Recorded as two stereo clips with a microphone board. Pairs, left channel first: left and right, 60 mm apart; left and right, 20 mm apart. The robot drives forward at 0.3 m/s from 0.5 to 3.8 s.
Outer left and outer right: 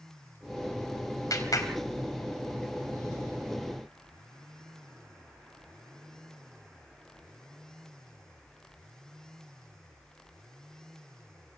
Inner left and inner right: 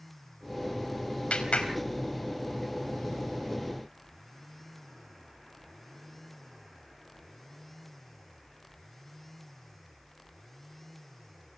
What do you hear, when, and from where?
1.3 s a clap: 80° left, 4.5 m